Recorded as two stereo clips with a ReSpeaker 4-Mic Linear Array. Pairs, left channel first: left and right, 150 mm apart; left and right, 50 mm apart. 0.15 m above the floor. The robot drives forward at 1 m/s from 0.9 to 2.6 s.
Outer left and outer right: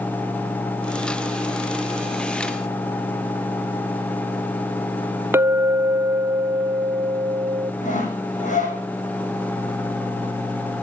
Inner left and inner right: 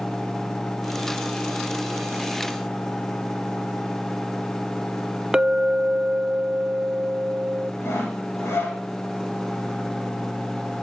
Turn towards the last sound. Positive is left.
turn(degrees=55)  # may be behind; listen again after turning